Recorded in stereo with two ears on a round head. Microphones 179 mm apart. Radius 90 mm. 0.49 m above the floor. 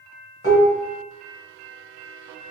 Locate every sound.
0.4 s dishes clattering: 45° left (ahead or behind), 1.6 m